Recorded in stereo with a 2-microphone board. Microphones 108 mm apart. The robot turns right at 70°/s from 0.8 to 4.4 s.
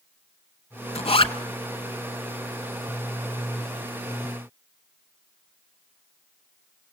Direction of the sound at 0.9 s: 80° left.